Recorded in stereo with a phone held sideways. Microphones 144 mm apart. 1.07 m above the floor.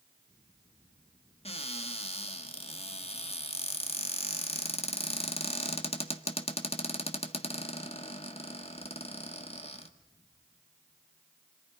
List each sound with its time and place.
1.4 s a cupboard door: 45° left (ahead or behind), 1.5 m